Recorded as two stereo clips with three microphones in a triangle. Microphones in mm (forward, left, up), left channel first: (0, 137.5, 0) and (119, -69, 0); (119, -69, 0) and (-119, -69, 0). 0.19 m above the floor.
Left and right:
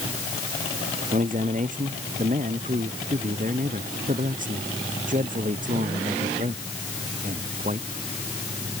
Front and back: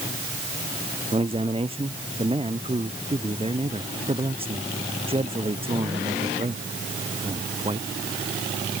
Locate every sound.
1.1 s a man speaking: 115° right